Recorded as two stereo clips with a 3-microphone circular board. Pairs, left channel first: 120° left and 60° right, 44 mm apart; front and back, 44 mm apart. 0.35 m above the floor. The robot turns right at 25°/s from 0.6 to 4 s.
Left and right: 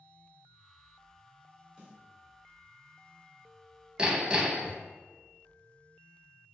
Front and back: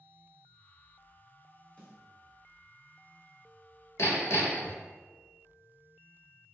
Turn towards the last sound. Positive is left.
turn(degrees=5)